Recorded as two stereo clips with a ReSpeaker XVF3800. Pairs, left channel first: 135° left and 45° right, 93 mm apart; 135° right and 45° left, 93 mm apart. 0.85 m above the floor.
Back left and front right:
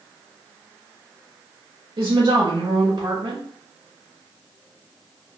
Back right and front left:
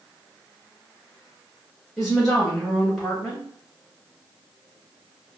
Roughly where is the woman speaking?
Ahead right.